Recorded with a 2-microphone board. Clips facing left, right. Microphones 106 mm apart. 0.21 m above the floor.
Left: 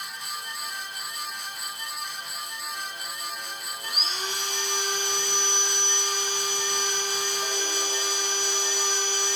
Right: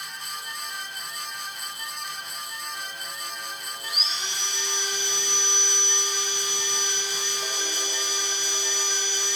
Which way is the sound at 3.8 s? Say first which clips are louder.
Left 3 dB; 50° left (ahead or behind).